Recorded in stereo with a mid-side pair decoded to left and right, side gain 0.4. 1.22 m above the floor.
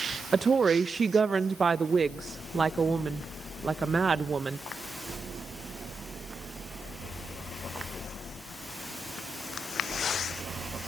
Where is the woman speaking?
40° right, 0.6 m.